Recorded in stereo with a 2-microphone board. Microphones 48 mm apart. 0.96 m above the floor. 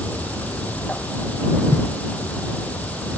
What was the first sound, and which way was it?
An insect, 30° left (ahead or behind).